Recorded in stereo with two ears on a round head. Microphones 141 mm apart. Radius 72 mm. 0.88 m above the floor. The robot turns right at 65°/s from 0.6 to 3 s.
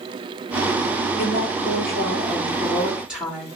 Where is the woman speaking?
70° left, 1.5 m; by 3.5 s 175° right, 1.5 m.